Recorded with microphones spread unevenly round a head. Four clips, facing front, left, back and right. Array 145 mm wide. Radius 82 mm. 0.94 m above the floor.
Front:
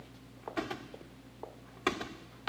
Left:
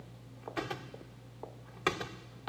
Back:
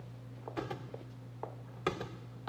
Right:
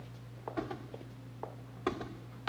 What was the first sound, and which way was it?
Only background noise.